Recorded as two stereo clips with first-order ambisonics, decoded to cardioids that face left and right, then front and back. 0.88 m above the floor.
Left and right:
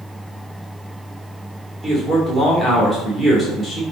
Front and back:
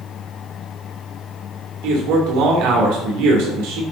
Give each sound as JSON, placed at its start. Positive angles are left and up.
{"t": 1.8, "sound": "a man speaking", "azimuth_deg": -165, "distance_m": 3.0}